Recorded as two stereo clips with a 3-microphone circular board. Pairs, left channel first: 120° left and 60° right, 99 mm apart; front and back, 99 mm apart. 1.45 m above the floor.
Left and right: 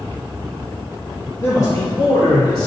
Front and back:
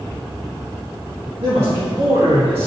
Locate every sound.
1.4 s a man speaking: straight behind, 2.0 m; by 2.7 s 160° left, 2 m